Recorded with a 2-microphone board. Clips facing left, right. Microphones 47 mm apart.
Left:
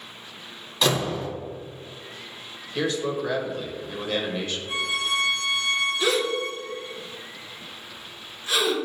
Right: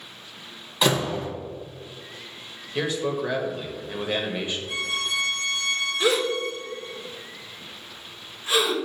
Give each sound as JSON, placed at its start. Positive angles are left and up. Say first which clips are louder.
{"t": 0.8, "sound": "a door slam", "louder": "right 1 dB", "side_deg": -15, "distance_m": 1.7}
{"t": 2.8, "sound": "a man speaking", "louder": "even", "side_deg": -20, "distance_m": 0.9}
{"t": 4.7, "sound": "a violin", "louder": "left 4 dB", "side_deg": 15, "distance_m": 1.8}
{"t": 6.0, "sound": "a gasp", "louder": "right 1 dB", "side_deg": -25, "distance_m": 1.1}